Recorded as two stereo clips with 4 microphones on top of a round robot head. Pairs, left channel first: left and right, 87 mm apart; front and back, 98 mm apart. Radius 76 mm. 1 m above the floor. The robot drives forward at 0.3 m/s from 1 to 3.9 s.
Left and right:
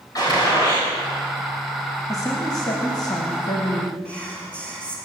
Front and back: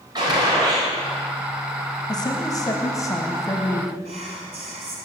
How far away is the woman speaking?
About 1.6 m.